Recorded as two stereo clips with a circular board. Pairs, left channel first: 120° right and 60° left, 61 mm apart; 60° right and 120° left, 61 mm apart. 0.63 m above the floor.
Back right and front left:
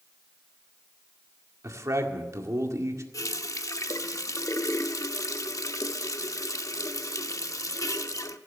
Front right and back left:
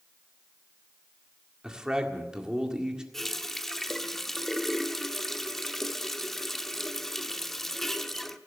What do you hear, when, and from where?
1.6 s a man speaking: 45° left, 1.8 m
3.1 s a running tap: 145° right, 0.7 m